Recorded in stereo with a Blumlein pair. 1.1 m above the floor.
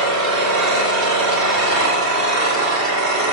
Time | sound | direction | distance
0.0 | an engine running | 35° right | 3 m